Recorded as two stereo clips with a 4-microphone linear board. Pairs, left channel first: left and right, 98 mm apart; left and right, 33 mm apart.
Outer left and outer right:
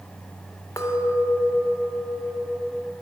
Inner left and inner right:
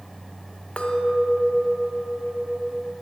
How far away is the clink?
About 0.6 m.